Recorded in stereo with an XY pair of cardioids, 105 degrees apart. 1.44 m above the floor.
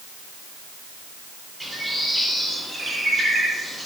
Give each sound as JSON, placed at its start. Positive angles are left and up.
{"t": 1.6, "sound": "a bird", "azimuth_deg": 0, "distance_m": 3.5}